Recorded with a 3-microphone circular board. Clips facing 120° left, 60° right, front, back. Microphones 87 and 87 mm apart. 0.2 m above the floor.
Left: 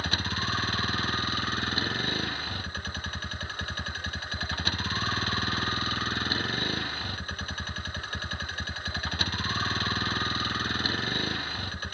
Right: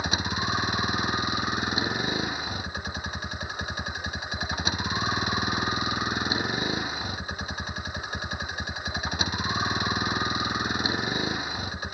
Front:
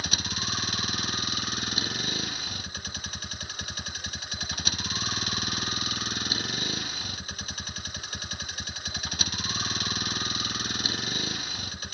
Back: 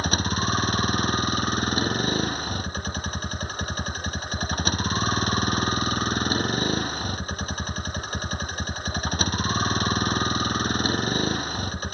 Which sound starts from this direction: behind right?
A vehicle, at 0.0 s.